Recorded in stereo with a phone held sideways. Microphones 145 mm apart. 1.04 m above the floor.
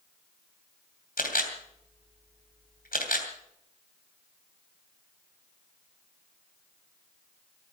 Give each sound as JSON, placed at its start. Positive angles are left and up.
{"t": 1.2, "sound": "a camera shutter", "side_deg": 80, "distance_m": 3.0}